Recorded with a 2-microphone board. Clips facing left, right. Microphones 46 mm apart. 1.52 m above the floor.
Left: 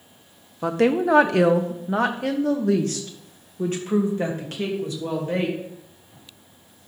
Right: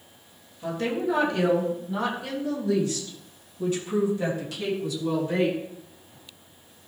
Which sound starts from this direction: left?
A woman speaking, at 0.6 s.